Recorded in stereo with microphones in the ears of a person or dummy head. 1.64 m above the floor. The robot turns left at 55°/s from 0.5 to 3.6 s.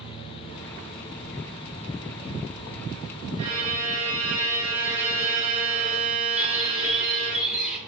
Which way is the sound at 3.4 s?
30° right (ahead or behind).